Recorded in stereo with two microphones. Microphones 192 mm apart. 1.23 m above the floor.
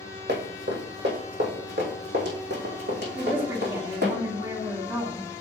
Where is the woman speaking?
25° right (ahead or behind), 1.9 m.